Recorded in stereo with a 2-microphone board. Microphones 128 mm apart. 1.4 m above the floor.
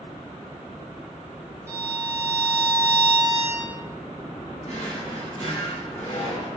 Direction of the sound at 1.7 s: 20° right (ahead or behind).